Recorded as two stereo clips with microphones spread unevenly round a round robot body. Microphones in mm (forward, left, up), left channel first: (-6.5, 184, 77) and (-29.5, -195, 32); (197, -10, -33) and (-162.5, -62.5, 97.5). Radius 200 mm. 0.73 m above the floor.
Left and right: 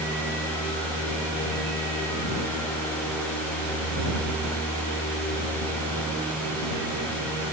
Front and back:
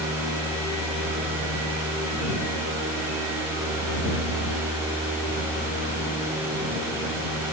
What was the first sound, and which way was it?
Only background noise.